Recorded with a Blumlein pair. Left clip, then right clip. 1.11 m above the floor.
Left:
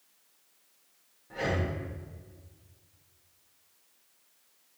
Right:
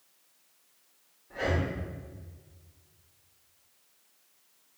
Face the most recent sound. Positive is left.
turn(degrees=25)